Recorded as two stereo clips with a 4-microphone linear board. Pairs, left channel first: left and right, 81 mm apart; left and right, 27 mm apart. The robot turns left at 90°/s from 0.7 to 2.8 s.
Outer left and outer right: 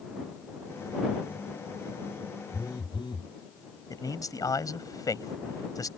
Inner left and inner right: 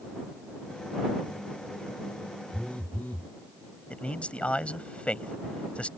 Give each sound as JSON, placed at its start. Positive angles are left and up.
{"t": 2.5, "sound": "a phone buzzing", "side_deg": 40}
{"t": 3.9, "sound": "a man speaking", "side_deg": 50}